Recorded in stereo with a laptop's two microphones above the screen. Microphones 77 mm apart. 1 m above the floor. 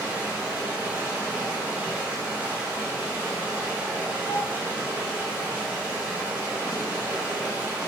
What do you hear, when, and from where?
0.0 s running water: 25° right (ahead or behind), 1.4 m